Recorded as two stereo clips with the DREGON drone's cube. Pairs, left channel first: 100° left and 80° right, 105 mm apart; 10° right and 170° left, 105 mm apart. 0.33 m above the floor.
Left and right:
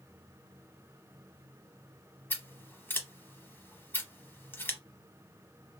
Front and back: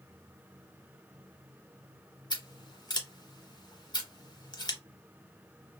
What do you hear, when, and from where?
2.3 s scissors: 30° left, 0.7 m